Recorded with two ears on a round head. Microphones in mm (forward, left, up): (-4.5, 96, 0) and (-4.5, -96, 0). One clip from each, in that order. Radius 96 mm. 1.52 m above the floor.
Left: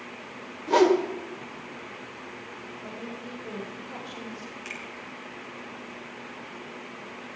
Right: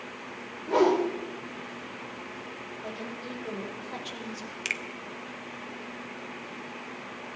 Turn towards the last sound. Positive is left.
turn(degrees=-80)